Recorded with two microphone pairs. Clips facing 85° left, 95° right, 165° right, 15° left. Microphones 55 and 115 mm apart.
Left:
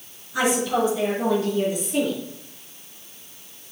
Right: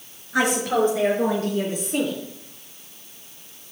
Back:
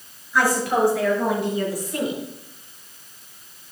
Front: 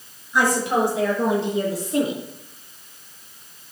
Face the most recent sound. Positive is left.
turn(degrees=-50)